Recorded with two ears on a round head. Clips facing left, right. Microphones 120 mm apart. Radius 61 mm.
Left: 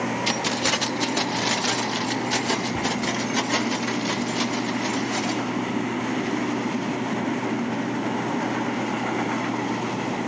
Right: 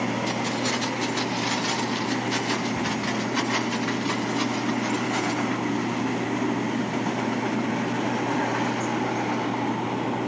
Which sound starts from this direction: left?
Keys jangling, at 0.3 s.